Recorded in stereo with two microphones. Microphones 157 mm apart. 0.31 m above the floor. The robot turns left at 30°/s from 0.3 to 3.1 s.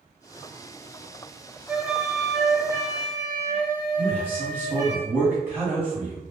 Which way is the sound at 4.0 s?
15° right (ahead or behind).